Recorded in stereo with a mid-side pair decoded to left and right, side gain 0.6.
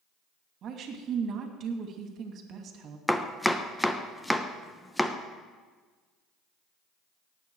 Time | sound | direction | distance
0.6 | a woman speaking | 50° right | 2.5 m
3.1 | chopping | 5° left | 1.0 m